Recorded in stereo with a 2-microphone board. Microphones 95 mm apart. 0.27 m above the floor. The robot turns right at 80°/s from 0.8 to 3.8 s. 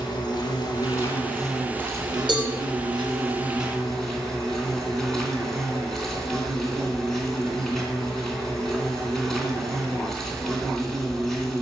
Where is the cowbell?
60° right (ahead or behind), 4 m; by 2.5 s 45° right (ahead or behind), 4 m.